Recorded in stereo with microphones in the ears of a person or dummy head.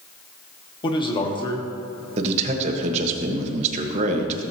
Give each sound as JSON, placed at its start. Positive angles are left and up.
{"t": 0.8, "sound": "a man speaking", "side_deg": 25, "distance_m": 1.3}
{"t": 2.2, "sound": "a man speaking", "side_deg": -40, "distance_m": 1.3}